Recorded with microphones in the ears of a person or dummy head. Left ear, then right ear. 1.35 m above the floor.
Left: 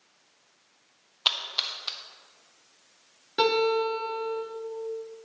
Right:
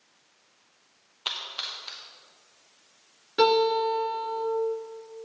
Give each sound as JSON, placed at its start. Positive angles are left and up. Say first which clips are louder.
{"t": 1.2, "sound": "a splash", "louder": "left 5 dB", "side_deg": 30, "distance_m": 0.9}
{"t": 3.4, "sound": "a guitar", "louder": "right 2 dB", "side_deg": 15, "distance_m": 3.0}